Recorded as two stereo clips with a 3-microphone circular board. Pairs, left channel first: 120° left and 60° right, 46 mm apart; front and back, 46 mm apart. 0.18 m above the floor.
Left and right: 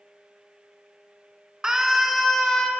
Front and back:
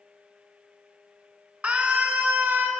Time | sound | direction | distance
1.6 | a scream | 130° right | 1.4 m